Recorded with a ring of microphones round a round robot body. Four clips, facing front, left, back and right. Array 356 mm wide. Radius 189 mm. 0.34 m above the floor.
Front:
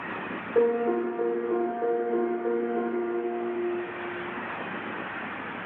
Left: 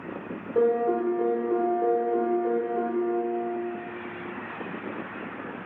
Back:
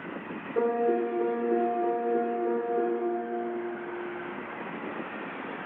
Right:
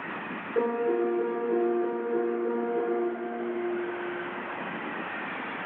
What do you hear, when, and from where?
0.6 s a piano: 20° left, 1.5 m